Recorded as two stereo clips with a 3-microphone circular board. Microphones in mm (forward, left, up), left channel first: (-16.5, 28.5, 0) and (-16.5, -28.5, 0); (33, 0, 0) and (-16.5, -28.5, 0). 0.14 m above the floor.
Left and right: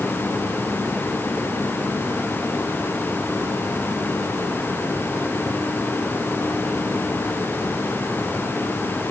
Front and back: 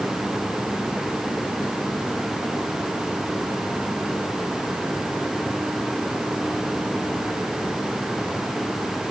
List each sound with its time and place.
Only background noise.